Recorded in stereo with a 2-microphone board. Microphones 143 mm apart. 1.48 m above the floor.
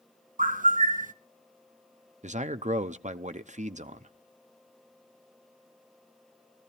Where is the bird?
70° right (ahead or behind), 0.7 m.